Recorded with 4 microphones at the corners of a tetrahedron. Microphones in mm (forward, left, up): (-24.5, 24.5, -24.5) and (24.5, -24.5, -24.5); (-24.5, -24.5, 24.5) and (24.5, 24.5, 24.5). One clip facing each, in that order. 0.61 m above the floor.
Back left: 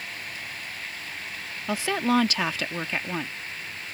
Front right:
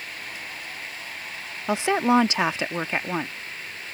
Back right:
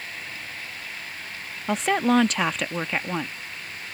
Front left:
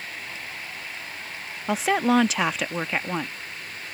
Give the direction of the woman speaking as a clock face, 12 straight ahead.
1 o'clock.